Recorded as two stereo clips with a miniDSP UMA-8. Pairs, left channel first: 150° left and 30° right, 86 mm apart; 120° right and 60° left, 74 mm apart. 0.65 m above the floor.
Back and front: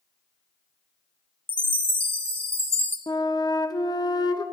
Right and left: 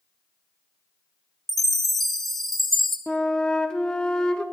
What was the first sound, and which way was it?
A chime, 40° right.